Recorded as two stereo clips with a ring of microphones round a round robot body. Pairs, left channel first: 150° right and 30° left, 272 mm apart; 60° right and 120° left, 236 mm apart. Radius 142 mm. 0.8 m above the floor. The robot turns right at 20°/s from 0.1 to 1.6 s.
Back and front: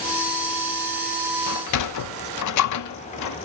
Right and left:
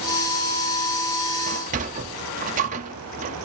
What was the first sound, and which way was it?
A sliding door, straight behind.